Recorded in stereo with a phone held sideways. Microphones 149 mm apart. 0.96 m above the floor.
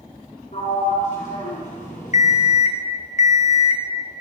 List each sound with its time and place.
0.5 s a sliding door: 55° left (ahead or behind), 2.5 m
2.1 s an alarm clock: 55° left (ahead or behind), 0.5 m